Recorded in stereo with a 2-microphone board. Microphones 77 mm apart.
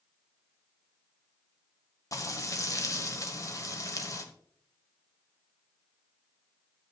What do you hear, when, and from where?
2.1 s frying: 45° left (ahead or behind), 1.3 m